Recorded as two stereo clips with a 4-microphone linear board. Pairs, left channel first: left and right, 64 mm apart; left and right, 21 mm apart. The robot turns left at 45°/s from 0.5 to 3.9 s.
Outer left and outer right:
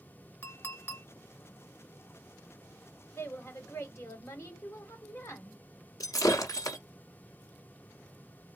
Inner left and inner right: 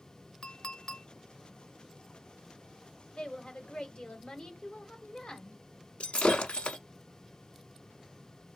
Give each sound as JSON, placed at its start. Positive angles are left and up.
{"t": 0.4, "sound": "a clink", "side_deg": 40, "distance_m": 0.8}
{"t": 3.1, "sound": "a woman speaking", "azimuth_deg": 110, "distance_m": 1.5}
{"t": 6.0, "sound": "breaking glass", "side_deg": 70, "distance_m": 0.9}